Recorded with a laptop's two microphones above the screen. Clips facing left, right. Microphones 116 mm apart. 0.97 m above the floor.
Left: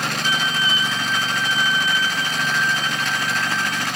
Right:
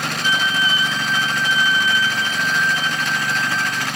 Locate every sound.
0.2 s a violin: 45° left (ahead or behind), 2.5 m